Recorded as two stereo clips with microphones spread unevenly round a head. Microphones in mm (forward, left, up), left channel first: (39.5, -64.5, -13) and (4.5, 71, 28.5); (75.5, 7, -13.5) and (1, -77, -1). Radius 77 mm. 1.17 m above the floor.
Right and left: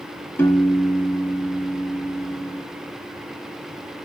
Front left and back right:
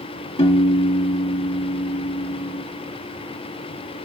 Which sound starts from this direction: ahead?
A piano, at 0.4 s.